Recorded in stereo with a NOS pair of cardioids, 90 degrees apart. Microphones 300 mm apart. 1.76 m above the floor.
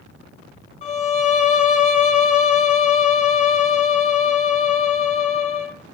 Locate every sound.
0.8 s a violin: 25° left, 0.6 m